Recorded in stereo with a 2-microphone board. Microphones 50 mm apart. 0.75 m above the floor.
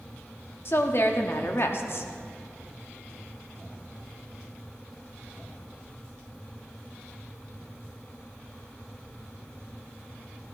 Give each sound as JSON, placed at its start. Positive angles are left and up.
{"t": 0.7, "sound": "a woman speaking", "side_deg": 55, "distance_m": 1.0}